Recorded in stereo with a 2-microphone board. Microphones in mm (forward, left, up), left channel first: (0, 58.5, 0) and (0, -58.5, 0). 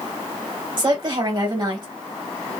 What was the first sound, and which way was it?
A woman speaking, 35° right (ahead or behind).